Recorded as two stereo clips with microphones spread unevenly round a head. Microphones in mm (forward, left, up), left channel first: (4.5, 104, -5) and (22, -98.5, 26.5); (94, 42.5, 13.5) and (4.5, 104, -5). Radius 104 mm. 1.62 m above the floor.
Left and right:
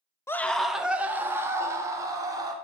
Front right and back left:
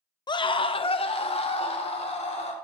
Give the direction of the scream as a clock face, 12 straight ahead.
11 o'clock.